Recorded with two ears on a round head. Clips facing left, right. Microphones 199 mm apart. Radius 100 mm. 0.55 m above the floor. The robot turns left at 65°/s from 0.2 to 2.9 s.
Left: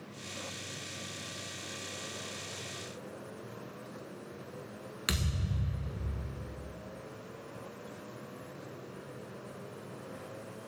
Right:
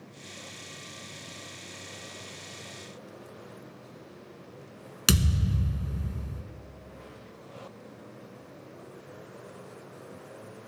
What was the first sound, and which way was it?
A thud, 55° right (ahead or behind).